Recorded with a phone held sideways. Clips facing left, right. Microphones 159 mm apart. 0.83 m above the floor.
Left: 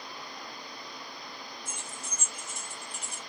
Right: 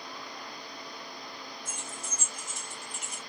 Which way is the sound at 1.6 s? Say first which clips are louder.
Right 1 dB; 75° left (ahead or behind).